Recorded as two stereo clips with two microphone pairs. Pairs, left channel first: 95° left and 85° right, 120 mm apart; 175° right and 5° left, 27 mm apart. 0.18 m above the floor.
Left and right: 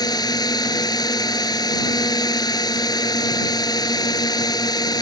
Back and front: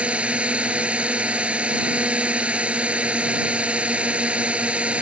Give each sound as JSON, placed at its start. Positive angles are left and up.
{"t": 0.0, "sound": "a drone", "azimuth_deg": 45}